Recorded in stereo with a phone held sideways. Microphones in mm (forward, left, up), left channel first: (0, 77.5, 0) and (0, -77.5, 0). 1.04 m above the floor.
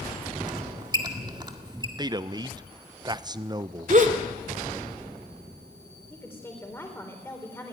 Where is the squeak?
30° right (ahead or behind), 1.6 m.